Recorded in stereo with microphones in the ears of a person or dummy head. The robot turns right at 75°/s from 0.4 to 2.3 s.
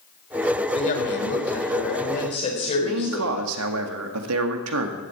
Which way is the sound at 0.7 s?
25° left.